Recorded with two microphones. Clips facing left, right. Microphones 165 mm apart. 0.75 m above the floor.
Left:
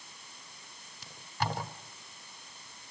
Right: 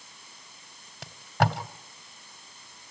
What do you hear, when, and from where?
1.0 s tape being pulled: 70° right (ahead or behind), 2.5 m